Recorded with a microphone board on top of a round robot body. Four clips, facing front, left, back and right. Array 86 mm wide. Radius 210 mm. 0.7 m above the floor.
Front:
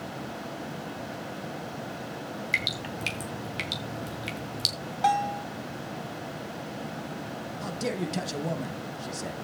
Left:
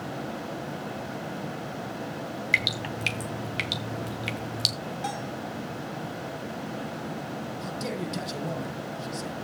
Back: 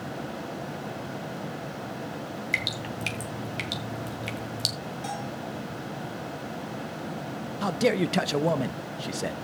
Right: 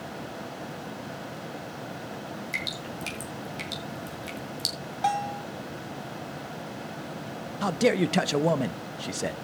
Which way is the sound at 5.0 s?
30° right.